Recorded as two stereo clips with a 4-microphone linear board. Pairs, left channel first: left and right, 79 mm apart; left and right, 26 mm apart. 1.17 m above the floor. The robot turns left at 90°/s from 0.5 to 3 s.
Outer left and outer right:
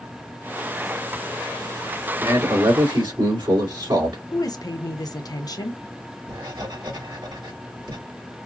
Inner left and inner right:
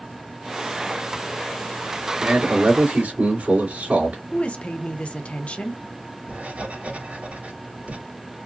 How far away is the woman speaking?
About 1.0 m.